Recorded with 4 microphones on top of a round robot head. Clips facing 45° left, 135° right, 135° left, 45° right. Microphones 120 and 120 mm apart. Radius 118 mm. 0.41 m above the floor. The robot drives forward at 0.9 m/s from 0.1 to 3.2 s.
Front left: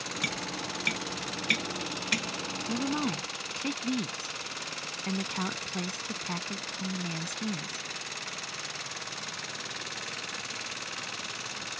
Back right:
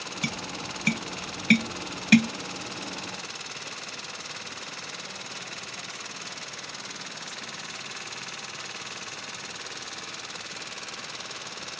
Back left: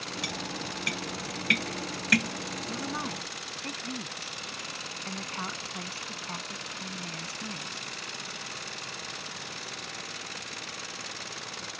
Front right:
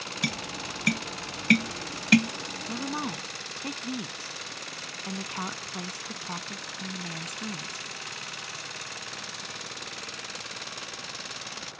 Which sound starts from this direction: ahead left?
A woman speaking, at 2.7 s.